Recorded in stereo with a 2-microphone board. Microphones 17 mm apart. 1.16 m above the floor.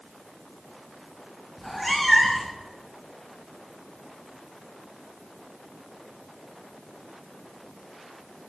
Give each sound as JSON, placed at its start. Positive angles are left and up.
{"t": 1.6, "sound": "a cat meowing", "side_deg": 5, "distance_m": 0.5}